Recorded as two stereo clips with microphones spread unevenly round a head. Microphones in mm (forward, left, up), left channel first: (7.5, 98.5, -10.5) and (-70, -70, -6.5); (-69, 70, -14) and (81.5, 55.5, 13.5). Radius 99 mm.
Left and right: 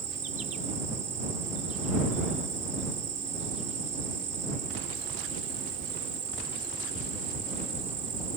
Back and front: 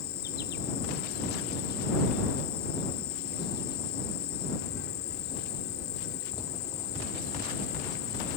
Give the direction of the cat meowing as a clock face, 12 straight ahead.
I don't hear a cat meowing.